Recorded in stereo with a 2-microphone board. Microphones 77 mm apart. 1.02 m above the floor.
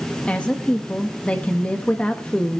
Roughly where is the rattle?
No rattle in this recording.